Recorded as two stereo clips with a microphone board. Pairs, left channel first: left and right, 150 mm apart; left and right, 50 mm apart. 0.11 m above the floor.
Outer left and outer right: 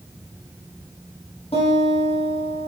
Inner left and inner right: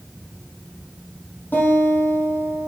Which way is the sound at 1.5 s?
40° left (ahead or behind).